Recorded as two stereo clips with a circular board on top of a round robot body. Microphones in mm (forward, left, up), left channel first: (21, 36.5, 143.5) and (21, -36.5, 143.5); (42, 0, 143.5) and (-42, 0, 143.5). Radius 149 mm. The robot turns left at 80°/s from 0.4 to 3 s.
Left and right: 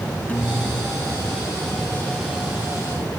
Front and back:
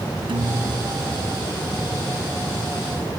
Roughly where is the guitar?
Behind.